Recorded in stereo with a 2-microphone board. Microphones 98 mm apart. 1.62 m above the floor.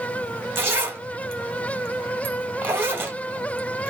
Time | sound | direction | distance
0.6 | a zipper | 25° right (ahead or behind) | 0.9 m